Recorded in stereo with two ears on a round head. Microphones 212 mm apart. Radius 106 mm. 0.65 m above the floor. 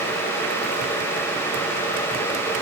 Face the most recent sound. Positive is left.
No sound to turn to.